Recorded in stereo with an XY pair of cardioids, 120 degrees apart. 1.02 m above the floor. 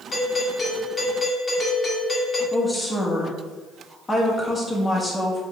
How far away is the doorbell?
About 1.9 m.